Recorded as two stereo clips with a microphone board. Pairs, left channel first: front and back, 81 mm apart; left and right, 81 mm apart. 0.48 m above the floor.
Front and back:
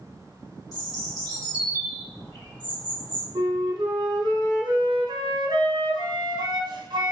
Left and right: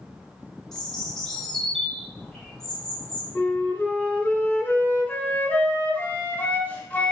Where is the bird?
10° left, 2 m.